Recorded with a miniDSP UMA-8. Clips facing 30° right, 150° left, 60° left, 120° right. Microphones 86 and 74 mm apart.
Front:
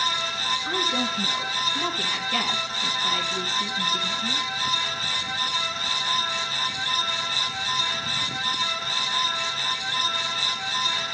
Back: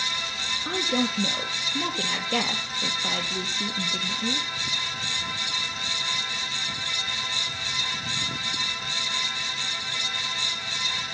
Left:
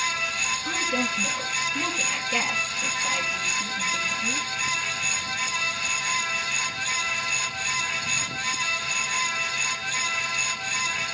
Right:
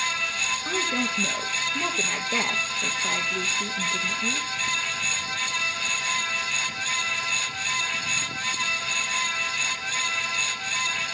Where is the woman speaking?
175° right, 3.5 m.